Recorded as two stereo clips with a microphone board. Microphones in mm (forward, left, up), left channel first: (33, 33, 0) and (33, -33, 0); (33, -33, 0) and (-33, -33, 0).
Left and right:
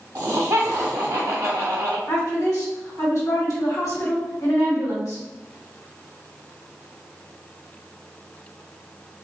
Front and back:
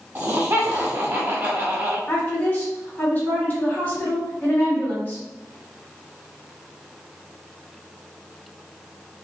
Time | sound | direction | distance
0.1 | laughter | 135° right | 0.8 m
2.1 | a woman speaking | 60° left | 2.0 m